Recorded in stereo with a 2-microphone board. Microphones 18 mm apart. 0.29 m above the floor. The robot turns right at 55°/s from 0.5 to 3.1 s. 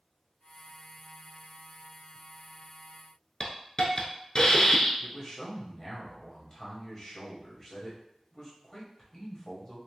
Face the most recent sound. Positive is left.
turn(degrees=25)  # may be behind; listen again after turning